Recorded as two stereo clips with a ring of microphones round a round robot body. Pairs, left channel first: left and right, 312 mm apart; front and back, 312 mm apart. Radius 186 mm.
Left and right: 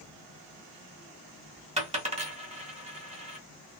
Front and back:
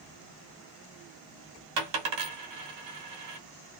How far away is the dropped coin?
About 1.2 m.